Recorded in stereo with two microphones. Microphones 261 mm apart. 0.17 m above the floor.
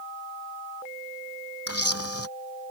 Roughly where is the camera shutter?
Left.